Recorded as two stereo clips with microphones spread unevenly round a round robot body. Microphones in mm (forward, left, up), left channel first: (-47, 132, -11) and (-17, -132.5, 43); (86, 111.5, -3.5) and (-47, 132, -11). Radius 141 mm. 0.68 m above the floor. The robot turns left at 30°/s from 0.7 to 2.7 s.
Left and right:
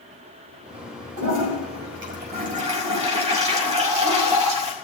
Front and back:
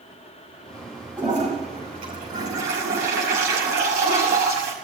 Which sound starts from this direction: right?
A toilet flushing, at 1.2 s.